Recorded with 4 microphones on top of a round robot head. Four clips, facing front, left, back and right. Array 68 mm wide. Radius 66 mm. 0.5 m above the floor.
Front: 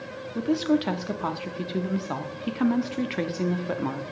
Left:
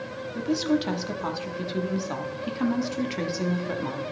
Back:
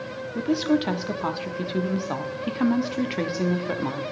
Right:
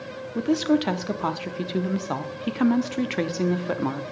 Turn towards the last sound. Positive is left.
turn(degrees=-95)